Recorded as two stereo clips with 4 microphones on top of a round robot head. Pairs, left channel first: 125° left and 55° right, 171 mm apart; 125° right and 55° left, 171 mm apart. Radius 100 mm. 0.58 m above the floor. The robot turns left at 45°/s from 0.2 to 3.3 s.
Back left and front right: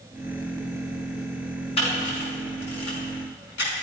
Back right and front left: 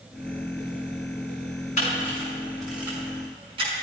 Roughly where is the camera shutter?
Behind.